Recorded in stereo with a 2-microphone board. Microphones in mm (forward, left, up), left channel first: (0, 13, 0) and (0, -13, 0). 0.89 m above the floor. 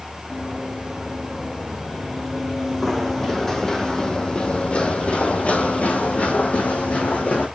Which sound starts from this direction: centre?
Running footsteps, at 0.3 s.